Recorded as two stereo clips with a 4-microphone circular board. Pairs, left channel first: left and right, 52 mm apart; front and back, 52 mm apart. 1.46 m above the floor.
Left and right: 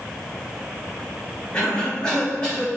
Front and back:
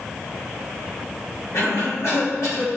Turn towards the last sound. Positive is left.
turn(degrees=15)